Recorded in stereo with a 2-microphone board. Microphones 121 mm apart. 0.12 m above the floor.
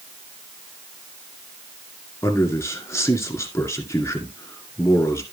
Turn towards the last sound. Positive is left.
turn(degrees=25)  # may be behind; listen again after turning